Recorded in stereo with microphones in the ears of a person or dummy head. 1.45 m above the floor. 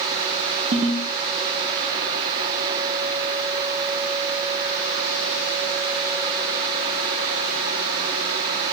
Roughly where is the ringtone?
Right.